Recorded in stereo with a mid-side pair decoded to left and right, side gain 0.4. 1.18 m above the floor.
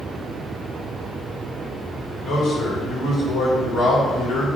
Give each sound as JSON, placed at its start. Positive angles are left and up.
{"t": 2.2, "sound": "a man speaking", "azimuth_deg": 65, "distance_m": 2.5}